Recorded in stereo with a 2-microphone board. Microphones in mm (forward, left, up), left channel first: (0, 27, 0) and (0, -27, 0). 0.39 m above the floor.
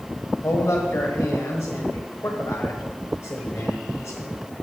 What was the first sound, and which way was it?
A man speaking, 55° left (ahead or behind).